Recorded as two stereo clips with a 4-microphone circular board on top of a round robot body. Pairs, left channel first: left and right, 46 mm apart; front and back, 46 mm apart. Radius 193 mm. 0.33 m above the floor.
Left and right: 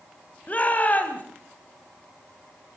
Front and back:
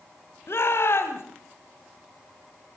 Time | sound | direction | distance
0.5 | a shout | 30° left | 2.5 m